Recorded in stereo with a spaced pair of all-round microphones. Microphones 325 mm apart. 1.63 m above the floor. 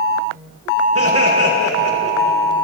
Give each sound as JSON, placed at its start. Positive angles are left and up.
{"t": 0.9, "sound": "laughter", "side_deg": -45, "distance_m": 2.0}